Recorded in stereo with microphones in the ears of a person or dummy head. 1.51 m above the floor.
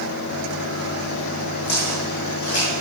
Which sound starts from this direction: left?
Footsteps, at 1.7 s.